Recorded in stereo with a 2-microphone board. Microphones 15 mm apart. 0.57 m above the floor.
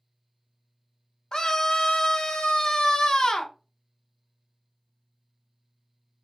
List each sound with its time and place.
1.3 s a scream: 45° left (ahead or behind), 0.8 m